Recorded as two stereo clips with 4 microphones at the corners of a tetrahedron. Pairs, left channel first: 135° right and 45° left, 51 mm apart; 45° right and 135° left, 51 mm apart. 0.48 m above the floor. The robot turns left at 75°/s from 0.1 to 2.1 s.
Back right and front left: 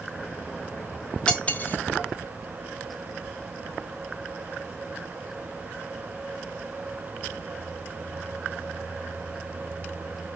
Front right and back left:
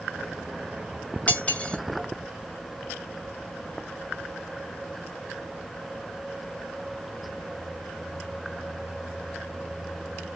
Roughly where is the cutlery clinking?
Right.